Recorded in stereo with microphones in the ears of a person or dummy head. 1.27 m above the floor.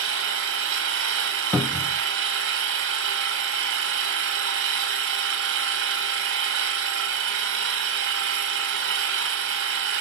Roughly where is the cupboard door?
Centre.